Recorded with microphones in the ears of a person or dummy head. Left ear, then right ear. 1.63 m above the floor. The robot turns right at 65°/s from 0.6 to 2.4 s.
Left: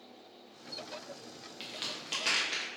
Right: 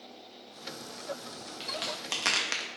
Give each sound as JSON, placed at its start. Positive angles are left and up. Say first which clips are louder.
{"t": 1.6, "sound": "a crack", "louder": "right 4 dB", "side_deg": -5, "distance_m": 0.5}